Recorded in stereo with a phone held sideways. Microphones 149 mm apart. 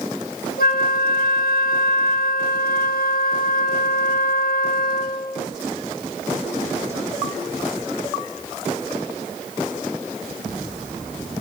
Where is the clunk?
I don't hear a clunk.